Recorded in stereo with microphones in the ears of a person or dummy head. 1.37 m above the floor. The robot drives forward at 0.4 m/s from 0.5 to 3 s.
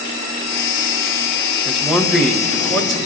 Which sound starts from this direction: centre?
A man speaking, at 1.6 s.